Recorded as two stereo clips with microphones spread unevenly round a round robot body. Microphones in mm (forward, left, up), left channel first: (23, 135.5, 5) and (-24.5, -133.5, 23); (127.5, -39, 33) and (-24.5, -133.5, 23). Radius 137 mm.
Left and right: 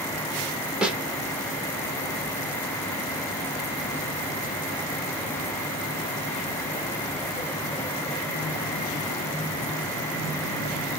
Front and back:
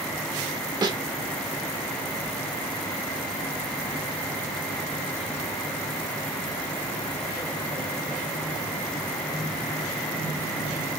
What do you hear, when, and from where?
0.8 s a snare drum: 170° left, 0.7 m